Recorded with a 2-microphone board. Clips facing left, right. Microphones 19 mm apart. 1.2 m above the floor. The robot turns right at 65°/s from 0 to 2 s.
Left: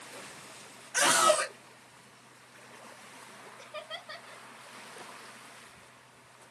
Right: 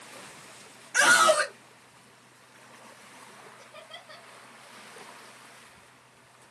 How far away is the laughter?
About 0.6 m.